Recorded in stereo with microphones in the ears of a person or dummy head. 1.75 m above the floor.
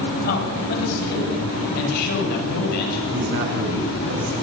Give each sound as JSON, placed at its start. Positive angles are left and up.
{"t": 0.2, "sound": "a man speaking", "side_deg": 45, "distance_m": 9.5}
{"t": 3.1, "sound": "a man speaking", "side_deg": -55, "distance_m": 10.0}